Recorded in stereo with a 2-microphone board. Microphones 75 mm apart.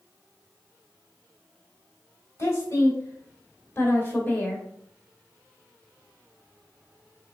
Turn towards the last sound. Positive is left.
turn(degrees=20)  # may be behind; listen again after turning